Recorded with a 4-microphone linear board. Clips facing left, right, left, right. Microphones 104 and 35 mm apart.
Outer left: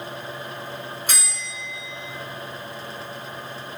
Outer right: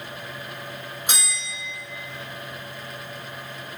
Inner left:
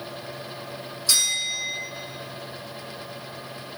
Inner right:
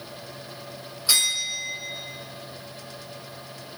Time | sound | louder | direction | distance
1.1 | a bell | even, even | 20° right (ahead or behind) | 1.8 m